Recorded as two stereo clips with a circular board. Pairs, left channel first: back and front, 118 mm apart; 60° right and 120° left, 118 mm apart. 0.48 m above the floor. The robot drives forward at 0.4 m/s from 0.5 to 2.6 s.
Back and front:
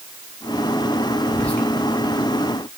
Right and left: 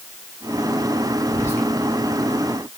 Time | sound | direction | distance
1.3 | whispering | 105° right | 1.0 m